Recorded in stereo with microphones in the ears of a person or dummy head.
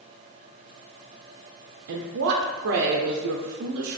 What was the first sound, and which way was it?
A woman speaking, 75° right (ahead or behind).